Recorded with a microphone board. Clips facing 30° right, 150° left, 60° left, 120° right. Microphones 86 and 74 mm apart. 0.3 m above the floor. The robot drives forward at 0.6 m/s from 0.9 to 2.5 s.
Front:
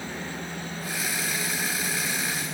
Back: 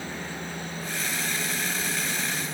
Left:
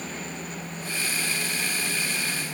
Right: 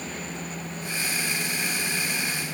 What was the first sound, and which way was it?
Only background noise.